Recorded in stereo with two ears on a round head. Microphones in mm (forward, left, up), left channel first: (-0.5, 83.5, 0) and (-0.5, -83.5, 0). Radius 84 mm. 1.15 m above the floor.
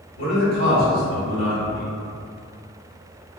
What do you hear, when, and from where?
0.2 s a man speaking: 65° left (ahead or behind), 1.8 m